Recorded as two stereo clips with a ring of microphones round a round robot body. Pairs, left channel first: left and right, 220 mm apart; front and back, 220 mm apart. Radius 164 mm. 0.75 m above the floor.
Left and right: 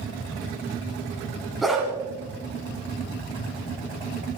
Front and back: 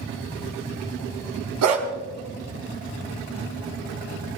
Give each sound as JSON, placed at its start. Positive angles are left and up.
{"t": 1.6, "sound": "a dog barking", "azimuth_deg": 180, "distance_m": 2.5}